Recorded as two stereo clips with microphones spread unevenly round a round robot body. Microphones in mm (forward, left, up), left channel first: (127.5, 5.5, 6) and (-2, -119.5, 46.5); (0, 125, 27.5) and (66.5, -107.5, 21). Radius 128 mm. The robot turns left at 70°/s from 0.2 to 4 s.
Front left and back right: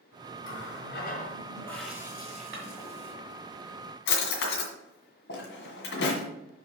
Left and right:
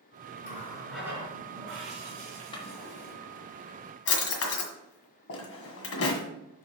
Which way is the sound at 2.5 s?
Straight behind.